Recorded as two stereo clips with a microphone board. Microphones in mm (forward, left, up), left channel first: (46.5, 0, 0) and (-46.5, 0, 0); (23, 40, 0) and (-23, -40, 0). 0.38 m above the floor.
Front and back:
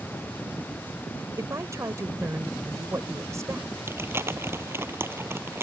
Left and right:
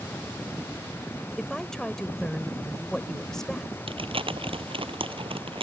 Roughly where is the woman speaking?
Behind left.